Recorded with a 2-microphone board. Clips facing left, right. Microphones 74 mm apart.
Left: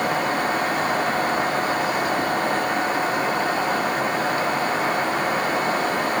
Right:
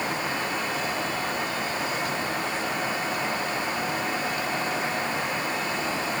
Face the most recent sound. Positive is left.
No sound to turn to.